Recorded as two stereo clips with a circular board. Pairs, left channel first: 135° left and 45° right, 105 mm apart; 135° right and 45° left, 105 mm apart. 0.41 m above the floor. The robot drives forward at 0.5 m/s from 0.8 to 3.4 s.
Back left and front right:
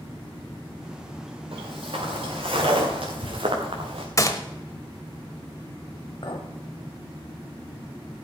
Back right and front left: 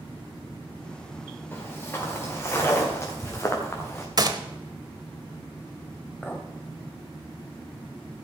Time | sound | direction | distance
1.5 | footsteps | 65° right | 4.5 m
4.2 | a gunshot | 85° left | 1.0 m
6.2 | a clink | 150° left | 1.6 m